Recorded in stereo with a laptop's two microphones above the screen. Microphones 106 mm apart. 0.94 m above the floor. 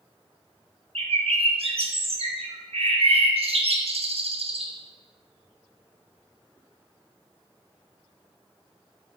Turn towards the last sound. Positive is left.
turn(degrees=-65)  # may be behind; listen again after turning